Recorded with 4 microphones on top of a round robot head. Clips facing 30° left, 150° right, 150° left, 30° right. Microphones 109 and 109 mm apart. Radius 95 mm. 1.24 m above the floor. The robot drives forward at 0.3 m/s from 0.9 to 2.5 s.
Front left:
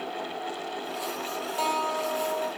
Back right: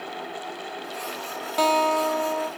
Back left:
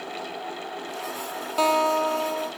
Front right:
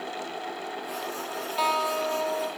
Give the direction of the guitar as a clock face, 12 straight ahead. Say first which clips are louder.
Back right 8 dB, back left 5 dB; 5 o'clock.